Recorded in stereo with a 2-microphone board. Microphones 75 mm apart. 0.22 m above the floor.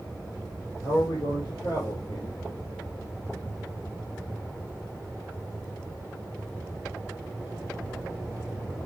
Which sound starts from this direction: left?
A man speaking, at 0.8 s.